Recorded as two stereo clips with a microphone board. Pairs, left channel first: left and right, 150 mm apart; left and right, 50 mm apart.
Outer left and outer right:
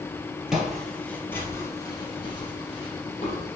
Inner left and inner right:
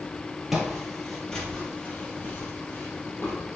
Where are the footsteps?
5° right (ahead or behind), 2 m; by 3.5 s 45° left (ahead or behind), 3 m.